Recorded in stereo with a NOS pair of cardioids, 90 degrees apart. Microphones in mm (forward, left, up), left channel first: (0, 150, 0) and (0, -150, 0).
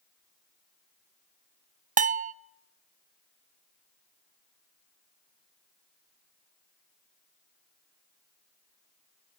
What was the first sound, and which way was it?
A bell, 25° right.